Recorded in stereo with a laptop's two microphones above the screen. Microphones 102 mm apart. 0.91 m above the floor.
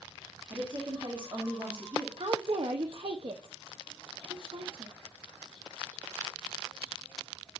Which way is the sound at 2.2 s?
55° right (ahead or behind).